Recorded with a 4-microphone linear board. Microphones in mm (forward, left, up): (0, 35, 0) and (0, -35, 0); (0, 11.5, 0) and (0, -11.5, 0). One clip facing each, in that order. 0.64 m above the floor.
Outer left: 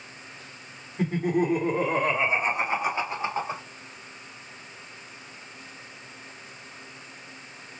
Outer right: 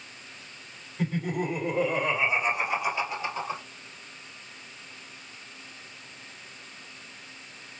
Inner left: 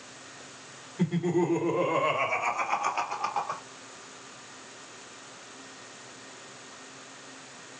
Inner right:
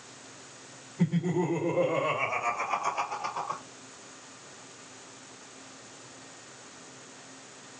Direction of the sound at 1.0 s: 40° left (ahead or behind).